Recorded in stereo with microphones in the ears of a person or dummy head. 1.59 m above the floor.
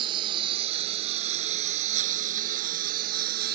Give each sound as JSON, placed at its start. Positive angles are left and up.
{"t": 0.0, "sound": "a lawn mower", "side_deg": -25}